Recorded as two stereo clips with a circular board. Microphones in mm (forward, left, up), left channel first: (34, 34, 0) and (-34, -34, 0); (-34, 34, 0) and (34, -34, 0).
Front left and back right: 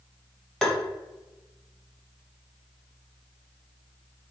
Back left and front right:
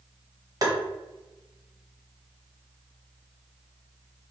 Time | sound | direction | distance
0.6 | tapping | 35° right | 0.6 m